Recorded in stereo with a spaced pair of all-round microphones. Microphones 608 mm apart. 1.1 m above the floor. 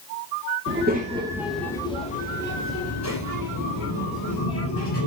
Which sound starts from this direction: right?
A child speaking, at 0.7 s.